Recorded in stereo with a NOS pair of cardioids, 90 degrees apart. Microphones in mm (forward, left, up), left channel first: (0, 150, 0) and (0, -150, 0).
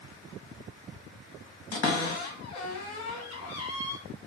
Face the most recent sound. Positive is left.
turn(degrees=55)